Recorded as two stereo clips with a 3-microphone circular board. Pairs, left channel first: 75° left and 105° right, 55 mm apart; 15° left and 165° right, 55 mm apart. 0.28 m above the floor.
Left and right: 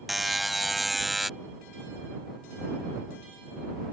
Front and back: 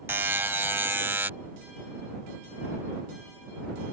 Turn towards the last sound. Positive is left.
turn(degrees=170)